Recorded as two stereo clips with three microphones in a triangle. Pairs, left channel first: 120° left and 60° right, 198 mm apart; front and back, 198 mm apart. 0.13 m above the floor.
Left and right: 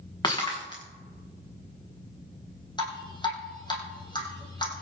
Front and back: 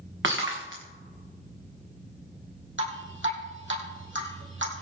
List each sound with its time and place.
0.2 s breaking glass: 170° right, 4.5 m
2.8 s dripping: 170° right, 4.5 m